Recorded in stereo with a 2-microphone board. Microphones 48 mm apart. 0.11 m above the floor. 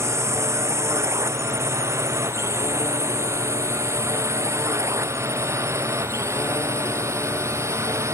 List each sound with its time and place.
0.0 s a drone: 75° right (ahead or behind); by 8.2 s 80° right